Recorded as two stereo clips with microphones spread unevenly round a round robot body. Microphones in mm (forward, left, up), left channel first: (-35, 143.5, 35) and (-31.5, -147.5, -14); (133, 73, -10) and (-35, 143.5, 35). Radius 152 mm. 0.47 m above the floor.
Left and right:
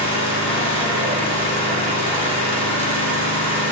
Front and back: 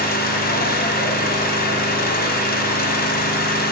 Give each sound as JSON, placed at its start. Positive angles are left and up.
{"t": 0.0, "sound": "an engine running", "azimuth_deg": 20, "distance_m": 0.8}